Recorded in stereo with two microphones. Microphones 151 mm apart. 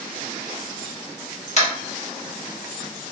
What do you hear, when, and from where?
1.6 s tapping: 50° left (ahead or behind), 1.0 m